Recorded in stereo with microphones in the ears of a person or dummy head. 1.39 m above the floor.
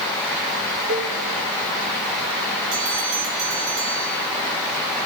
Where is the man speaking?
No man speaking in this recording.